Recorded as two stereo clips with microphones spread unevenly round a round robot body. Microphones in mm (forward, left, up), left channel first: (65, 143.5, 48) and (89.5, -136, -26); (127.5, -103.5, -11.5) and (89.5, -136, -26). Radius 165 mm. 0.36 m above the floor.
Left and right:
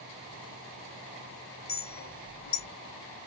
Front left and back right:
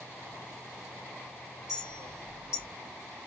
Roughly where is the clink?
Ahead left.